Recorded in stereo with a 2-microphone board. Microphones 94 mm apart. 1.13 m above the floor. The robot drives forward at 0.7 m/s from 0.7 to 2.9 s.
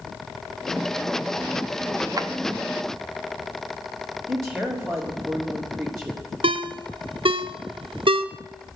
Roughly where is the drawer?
Right.